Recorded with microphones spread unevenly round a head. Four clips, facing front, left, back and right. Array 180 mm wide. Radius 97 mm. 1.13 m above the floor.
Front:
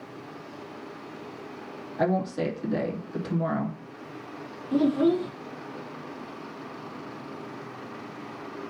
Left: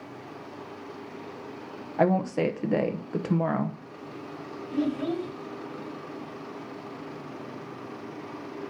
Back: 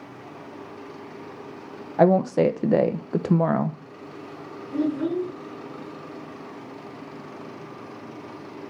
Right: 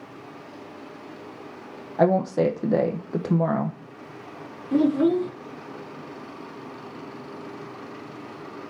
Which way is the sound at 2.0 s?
150° right.